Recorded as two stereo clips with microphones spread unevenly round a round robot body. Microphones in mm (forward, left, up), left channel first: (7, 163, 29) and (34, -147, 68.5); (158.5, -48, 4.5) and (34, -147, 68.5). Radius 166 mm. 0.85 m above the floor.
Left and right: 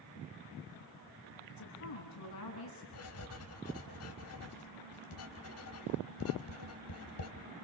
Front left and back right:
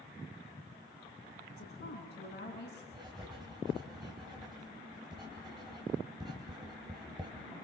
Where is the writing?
145° left, 2.5 m.